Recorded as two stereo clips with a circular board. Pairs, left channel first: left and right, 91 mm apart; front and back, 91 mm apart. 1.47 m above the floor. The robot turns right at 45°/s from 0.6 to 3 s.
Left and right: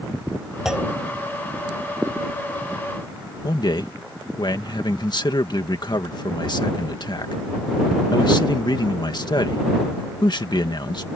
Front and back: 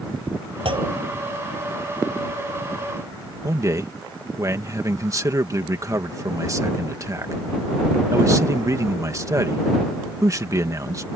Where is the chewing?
No chewing in this recording.